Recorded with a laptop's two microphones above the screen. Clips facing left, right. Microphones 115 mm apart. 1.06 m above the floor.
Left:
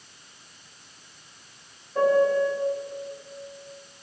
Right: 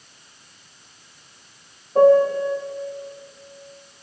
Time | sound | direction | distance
1.9 | a piano | 45° right (ahead or behind) | 1.1 m